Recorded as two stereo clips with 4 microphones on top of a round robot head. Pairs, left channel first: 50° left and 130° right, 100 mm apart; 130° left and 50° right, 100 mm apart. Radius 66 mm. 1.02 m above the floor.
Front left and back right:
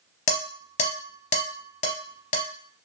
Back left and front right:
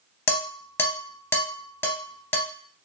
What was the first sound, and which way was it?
Dishes clattering, 65° left.